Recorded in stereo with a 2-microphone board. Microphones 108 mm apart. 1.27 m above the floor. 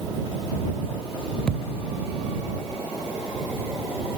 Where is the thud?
5° left (ahead or behind).